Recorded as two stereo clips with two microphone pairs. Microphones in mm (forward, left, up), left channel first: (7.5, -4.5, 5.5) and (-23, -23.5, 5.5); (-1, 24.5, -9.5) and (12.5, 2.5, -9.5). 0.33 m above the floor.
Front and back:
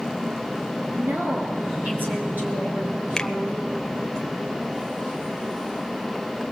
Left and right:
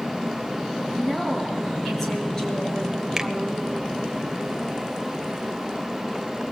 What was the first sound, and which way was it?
A woman speaking, 150° right.